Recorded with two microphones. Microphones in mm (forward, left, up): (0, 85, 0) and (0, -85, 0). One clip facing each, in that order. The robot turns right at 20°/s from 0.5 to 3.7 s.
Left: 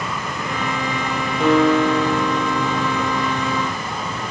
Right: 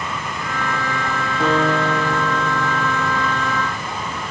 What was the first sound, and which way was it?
A guitar, 175° right.